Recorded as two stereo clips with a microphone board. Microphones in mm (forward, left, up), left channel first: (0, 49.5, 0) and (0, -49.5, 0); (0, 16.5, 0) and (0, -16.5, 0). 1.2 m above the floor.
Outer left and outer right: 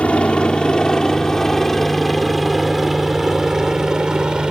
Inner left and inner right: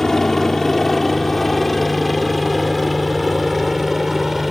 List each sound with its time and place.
0.0 s a helicopter: 10° left (ahead or behind); by 4.5 s 10° right (ahead or behind)